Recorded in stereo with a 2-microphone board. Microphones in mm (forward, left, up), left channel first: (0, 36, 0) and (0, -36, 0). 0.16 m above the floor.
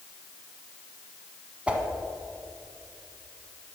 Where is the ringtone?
I don't hear a ringtone.